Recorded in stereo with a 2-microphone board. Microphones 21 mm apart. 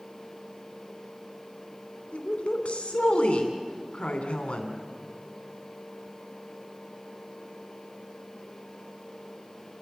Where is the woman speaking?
70° left (ahead or behind), 3 m.